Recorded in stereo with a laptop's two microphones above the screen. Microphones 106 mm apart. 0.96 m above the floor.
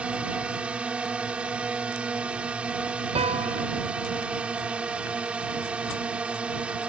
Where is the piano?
75° right (ahead or behind).